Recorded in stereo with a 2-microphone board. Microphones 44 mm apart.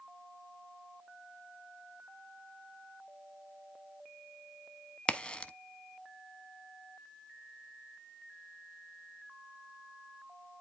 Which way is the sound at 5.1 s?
25° left (ahead or behind).